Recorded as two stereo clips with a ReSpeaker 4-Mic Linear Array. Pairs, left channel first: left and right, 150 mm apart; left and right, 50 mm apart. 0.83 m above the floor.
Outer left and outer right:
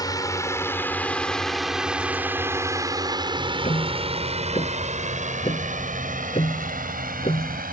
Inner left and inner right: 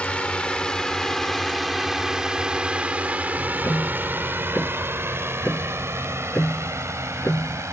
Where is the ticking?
40° left (ahead or behind).